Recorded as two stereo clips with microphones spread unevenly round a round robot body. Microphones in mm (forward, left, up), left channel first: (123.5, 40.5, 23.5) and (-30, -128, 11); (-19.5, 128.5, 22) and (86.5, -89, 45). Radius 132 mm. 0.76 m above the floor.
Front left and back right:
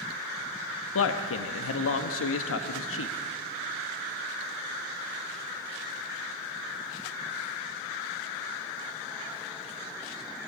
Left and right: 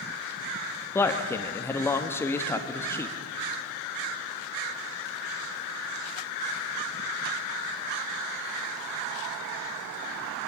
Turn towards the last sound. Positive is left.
turn(degrees=40)